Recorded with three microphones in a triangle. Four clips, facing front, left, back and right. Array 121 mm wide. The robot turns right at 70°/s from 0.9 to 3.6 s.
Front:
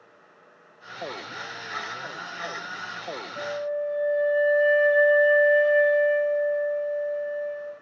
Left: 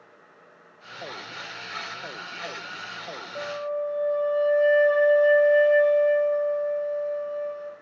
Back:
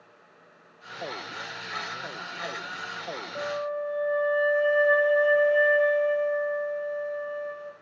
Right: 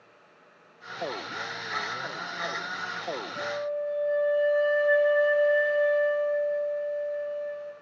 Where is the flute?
140° left, 2.5 m; by 7.7 s 160° left, 2.5 m.